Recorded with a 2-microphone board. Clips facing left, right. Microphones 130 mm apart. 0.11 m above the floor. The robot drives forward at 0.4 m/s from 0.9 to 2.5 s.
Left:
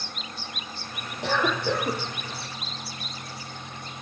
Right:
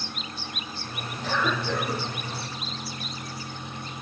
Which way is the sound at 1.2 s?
70° left (ahead or behind).